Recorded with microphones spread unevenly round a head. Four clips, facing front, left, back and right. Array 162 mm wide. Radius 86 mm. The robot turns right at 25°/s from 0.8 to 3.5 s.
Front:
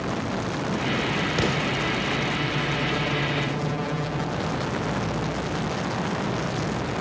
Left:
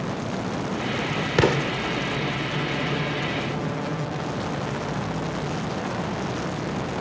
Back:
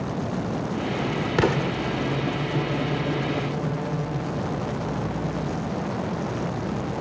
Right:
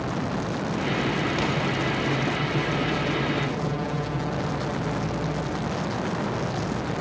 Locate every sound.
1.4 s an explosion: 110° left; by 1.7 s 120° left